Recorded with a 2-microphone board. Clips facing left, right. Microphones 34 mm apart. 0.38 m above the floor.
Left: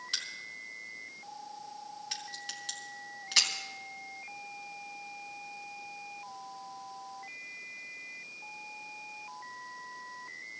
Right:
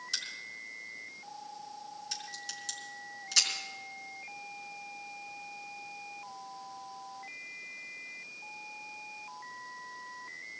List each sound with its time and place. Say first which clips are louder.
0.1 s a crack: left 1 dB; 35° left (ahead or behind), 3.5 m